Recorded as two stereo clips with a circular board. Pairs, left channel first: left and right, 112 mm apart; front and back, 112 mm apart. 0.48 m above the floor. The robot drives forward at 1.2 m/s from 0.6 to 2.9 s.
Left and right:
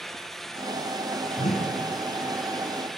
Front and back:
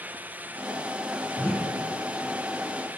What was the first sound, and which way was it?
A whoosh, 75° left.